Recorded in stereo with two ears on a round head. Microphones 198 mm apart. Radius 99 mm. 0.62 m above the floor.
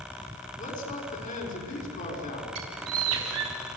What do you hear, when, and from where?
0.6 s a man speaking: 35° left (ahead or behind), 6 m
2.5 s a bird: 80° right, 4 m